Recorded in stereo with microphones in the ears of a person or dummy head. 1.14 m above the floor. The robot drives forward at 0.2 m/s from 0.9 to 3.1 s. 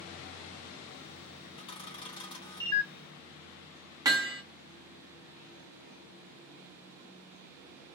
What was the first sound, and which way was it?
A camera shutter, 25° left (ahead or behind).